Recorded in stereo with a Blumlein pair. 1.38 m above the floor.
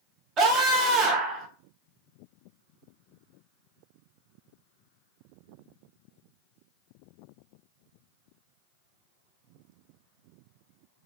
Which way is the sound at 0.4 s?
30° right.